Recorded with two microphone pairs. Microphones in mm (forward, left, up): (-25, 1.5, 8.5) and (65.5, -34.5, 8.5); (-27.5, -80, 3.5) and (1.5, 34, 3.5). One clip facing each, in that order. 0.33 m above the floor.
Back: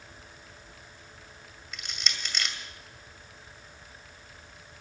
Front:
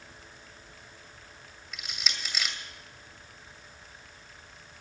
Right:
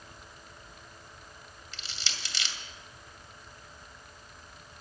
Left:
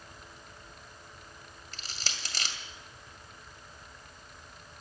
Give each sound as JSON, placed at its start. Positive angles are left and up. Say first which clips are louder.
{"t": 1.7, "sound": "crushing", "louder": "even, left 1 dB", "azimuth_deg": 65, "distance_m": 2.0}